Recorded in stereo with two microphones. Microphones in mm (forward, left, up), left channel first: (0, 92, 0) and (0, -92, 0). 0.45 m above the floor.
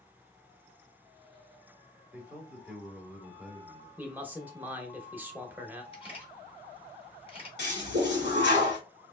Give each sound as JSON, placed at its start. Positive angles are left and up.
{"t": 2.1, "sound": "a man speaking", "side_deg": -10, "distance_m": 1.2}
{"t": 4.0, "sound": "a man speaking", "side_deg": -10, "distance_m": 0.7}
{"t": 5.9, "sound": "a camera shutter", "side_deg": 30, "distance_m": 1.4}
{"t": 7.6, "sound": "a toilet flushing", "side_deg": 70, "distance_m": 1.4}